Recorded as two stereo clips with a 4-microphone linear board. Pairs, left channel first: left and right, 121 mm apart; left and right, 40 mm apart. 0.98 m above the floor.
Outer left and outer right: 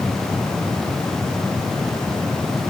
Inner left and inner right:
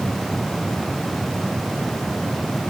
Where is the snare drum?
No snare drum in this recording.